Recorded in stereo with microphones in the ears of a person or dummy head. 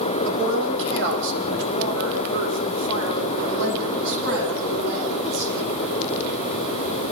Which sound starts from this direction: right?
A woman speaking, at 0.2 s.